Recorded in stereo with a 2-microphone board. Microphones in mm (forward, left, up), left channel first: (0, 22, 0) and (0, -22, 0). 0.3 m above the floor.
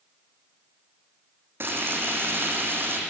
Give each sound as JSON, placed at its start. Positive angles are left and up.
{"t": 1.6, "sound": "frying", "side_deg": -55, "distance_m": 4.5}